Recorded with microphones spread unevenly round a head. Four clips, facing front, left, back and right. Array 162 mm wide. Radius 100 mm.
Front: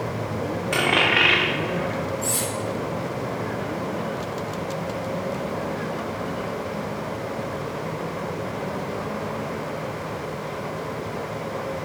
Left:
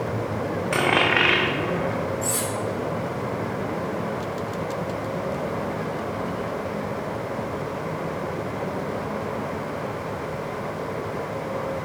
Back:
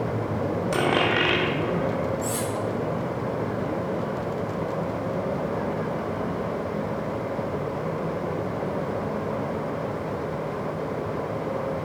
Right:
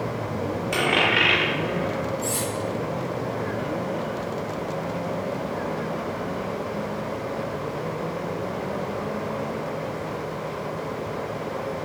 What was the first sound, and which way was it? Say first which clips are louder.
A dropped coin: left 2 dB, front 1 dB; 145° left.